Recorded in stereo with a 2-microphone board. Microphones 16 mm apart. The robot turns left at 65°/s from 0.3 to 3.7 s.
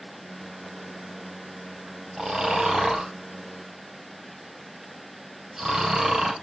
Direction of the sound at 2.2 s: 30° right (ahead or behind).